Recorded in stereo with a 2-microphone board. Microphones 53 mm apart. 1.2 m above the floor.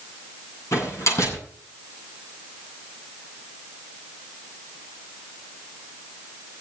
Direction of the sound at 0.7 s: 60° left (ahead or behind).